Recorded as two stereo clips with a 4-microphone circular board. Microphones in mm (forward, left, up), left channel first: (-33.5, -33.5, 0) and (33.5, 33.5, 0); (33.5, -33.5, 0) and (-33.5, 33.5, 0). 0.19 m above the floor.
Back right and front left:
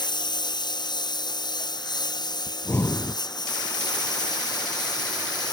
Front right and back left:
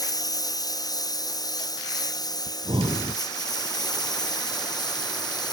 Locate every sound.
0.0 s a lawn mower: 95° right; by 5.5 s 90° right
2.5 s breathing: 160° left